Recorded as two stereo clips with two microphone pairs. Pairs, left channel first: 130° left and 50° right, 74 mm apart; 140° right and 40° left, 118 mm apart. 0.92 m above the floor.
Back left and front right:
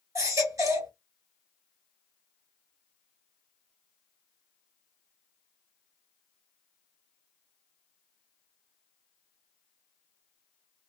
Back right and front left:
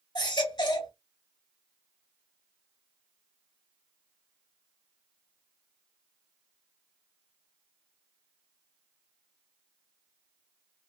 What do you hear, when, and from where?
0.1 s a baby crying: 90° right, 1.8 m